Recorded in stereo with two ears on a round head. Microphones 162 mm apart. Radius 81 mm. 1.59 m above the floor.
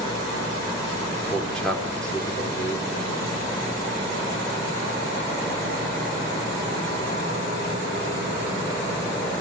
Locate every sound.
1.3 s a man speaking: 5° left (ahead or behind), 5 m